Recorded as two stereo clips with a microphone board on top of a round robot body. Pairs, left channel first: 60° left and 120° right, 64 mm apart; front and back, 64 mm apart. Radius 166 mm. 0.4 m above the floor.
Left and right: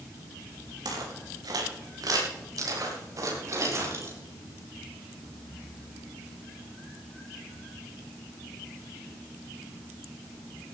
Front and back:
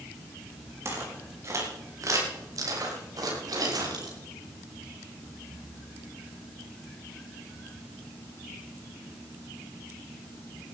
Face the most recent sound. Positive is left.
turn(degrees=-165)